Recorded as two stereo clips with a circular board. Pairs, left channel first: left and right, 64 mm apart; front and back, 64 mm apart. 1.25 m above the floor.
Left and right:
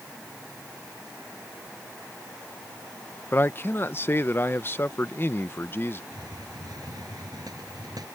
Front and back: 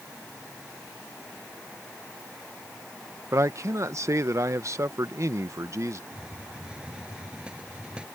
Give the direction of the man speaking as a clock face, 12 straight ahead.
7 o'clock.